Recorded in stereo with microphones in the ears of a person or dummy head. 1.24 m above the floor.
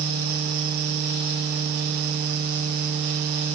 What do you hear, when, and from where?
Only background noise.